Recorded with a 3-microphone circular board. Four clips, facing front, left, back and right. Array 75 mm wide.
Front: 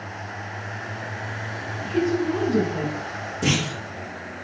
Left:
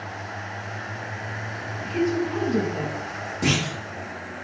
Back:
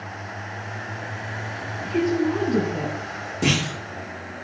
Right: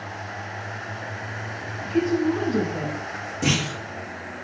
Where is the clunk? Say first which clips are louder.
Even, back 1 dB; straight behind, 1.4 m.